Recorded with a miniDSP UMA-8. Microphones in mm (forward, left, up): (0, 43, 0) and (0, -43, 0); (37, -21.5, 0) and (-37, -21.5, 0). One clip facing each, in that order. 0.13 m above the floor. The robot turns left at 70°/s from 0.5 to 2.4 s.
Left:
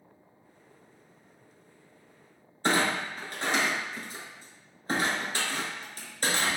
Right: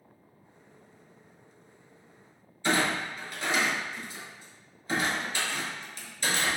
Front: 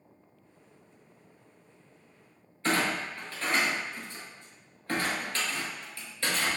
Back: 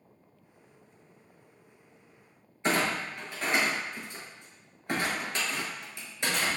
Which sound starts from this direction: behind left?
A clunk, at 2.6 s.